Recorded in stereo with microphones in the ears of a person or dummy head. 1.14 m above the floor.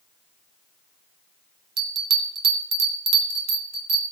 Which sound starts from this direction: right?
A bell, at 1.8 s.